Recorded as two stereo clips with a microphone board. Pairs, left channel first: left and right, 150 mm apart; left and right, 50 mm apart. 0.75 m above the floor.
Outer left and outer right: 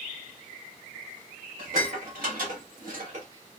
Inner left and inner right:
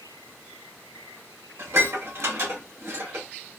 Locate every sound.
1.6 s dishes clattering: 70° right (ahead or behind), 2.0 m